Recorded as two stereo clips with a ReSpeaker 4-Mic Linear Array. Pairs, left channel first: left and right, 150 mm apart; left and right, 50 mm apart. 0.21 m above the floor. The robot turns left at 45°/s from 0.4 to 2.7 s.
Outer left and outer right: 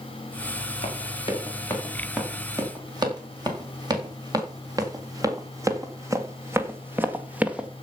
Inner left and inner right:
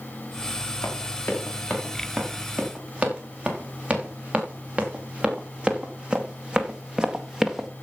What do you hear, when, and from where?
0.8 s running footsteps: 55° left (ahead or behind), 6 m; by 7.7 s 5° right (ahead or behind), 1.6 m